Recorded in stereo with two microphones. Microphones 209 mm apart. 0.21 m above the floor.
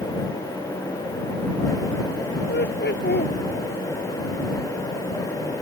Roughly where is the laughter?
Left.